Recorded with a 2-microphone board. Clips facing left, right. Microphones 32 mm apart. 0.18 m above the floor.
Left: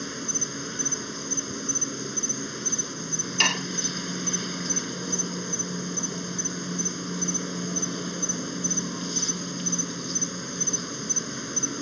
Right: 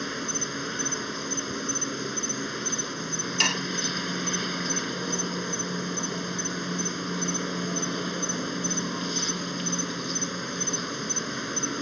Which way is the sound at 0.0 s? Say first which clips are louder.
Right 2 dB; 20° right (ahead or behind).